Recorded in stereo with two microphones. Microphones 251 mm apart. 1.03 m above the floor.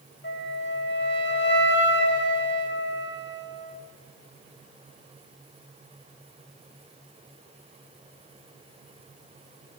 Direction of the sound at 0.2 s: 45° left (ahead or behind).